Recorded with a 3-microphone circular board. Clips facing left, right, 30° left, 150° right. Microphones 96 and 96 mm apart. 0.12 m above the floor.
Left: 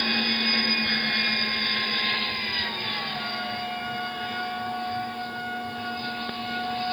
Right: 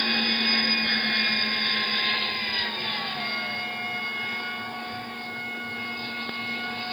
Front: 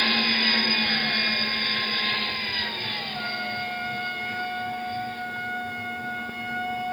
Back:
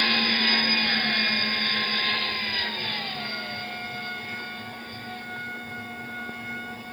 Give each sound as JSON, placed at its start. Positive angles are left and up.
{"t": 3.1, "sound": "a trumpet", "azimuth_deg": 50, "distance_m": 2.5}